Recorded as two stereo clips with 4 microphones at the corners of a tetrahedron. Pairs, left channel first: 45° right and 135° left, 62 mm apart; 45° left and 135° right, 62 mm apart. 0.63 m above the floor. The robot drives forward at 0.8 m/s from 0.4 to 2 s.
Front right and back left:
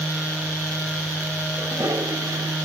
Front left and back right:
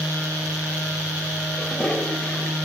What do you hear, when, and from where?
1.6 s a toilet flushing: 110° left, 1.6 m; by 2.5 s 120° left, 1.8 m